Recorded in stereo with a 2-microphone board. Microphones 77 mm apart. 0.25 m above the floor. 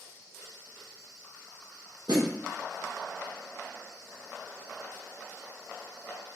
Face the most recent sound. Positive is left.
turn(degrees=-65)  # may be behind; listen again after turning